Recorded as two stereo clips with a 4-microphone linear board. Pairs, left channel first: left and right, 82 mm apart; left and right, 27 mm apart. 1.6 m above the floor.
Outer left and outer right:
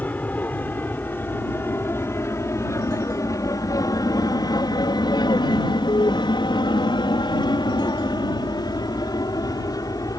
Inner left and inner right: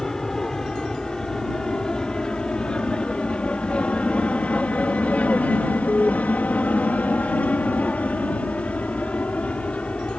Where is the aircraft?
20° left (ahead or behind); by 10.2 s 45° left (ahead or behind).